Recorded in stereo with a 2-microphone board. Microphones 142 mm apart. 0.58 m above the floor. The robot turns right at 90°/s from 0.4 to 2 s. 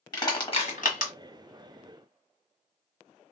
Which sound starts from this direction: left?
Crushing, at 0.1 s.